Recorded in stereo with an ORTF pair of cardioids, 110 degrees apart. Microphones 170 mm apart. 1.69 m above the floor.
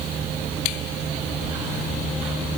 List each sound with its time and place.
Only background noise.